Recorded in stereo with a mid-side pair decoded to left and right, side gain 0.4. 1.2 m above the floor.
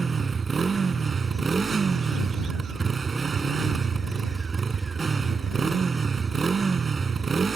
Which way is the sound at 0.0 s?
40° right.